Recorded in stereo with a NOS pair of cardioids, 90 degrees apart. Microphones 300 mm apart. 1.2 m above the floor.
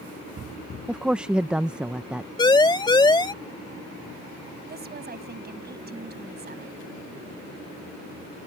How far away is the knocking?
No knocking in this recording.